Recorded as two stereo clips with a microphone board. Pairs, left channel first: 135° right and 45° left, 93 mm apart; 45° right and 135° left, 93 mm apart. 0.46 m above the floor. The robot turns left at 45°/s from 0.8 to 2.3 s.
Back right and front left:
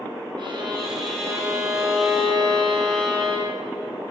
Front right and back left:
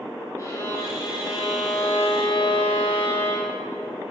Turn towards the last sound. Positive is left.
turn(degrees=-55)